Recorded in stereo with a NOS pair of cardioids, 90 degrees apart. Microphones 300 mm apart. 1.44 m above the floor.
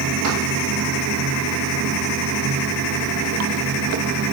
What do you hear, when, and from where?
0.0 s running water: 60° right, 2 m